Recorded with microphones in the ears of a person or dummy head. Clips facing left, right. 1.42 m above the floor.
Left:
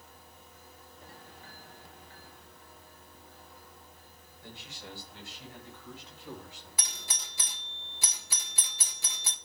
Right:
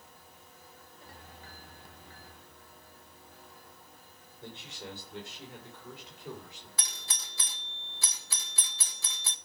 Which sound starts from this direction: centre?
A doorbell, at 6.8 s.